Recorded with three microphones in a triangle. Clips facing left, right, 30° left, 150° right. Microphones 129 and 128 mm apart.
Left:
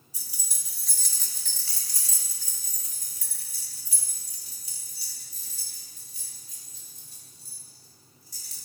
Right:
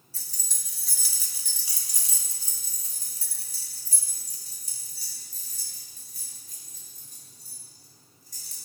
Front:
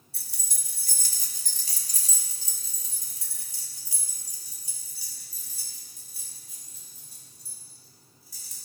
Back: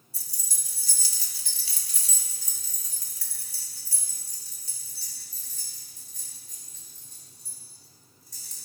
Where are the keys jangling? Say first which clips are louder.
Even, even; 15° left, 1.4 m; by 8.6 s 55° right, 5 m.